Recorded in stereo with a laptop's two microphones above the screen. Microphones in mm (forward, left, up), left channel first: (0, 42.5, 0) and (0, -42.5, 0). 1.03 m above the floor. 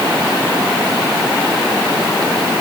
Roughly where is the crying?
I don't hear crying.